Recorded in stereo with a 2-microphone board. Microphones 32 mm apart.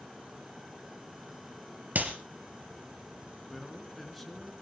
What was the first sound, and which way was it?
A clap, 60° right (ahead or behind).